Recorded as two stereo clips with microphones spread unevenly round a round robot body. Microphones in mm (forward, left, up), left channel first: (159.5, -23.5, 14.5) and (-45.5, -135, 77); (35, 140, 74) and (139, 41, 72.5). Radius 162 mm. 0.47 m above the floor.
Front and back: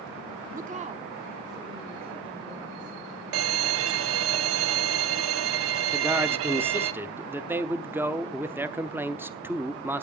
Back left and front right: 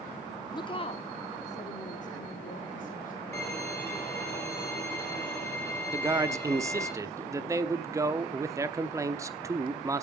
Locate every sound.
0.5 s a woman speaking: 160° left, 0.8 m; by 3.1 s 115° left, 2.0 m
3.3 s a violin: 140° right, 0.6 m
5.9 s a man speaking: 45° right, 0.9 m